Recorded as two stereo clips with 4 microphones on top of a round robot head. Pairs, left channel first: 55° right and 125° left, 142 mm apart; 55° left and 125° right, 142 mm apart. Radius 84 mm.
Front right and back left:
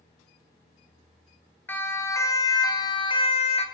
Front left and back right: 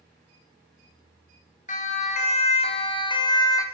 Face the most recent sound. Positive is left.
turn(degrees=-10)